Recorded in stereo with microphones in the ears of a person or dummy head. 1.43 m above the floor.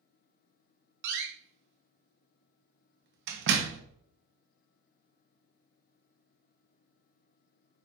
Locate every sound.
1.0 s a door slam: 65° right (ahead or behind), 1.0 m